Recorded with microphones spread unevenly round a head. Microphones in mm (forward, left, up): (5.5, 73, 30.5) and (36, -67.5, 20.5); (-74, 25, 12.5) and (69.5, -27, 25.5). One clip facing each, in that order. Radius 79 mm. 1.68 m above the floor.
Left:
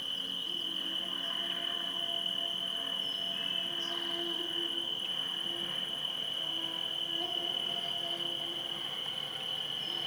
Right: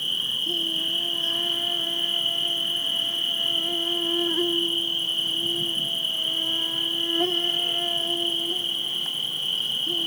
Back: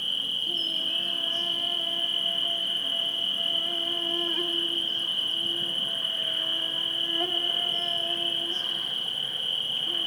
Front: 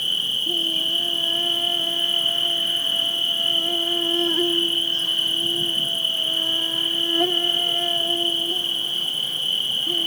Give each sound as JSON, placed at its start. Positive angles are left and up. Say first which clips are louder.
{"t": 0.0, "sound": "an insect", "louder": "right 8 dB, front 7 dB", "azimuth_deg": -60, "distance_m": 0.7}